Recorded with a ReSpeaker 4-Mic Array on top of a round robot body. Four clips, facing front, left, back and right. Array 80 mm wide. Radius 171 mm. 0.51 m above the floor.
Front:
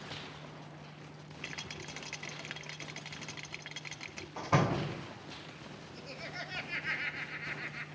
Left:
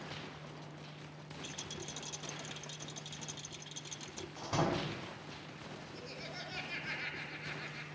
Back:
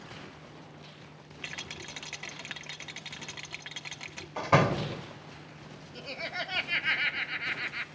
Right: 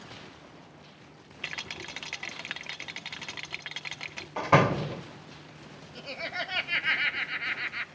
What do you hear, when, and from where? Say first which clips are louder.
1.4 s a rattle: right 9 dB, back 3 dB; 90° right, 0.9 m
4.4 s a door slam: right 12 dB, back 5 dB; 105° right, 1.7 m
6.0 s laughter: right 15 dB, back 8 dB; 115° right, 1.8 m